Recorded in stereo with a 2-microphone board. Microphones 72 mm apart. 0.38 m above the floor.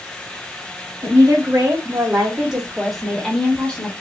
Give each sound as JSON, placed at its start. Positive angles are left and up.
{"t": 1.0, "sound": "a woman speaking", "side_deg": -35, "distance_m": 1.1}